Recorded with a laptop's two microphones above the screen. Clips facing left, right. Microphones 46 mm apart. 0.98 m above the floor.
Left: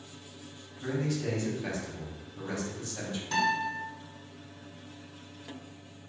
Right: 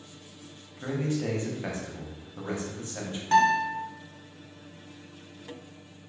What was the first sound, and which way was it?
A man speaking, 30° right (ahead or behind).